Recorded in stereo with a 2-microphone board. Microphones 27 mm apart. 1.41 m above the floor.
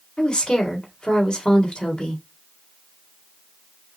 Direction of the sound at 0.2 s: 35° left (ahead or behind).